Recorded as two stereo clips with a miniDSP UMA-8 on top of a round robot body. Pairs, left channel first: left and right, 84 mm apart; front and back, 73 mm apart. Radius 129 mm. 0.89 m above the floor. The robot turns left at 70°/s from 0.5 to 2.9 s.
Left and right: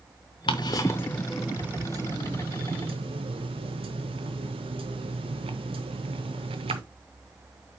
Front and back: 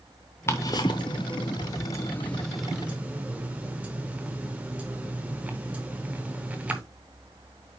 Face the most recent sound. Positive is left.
turn(degrees=-105)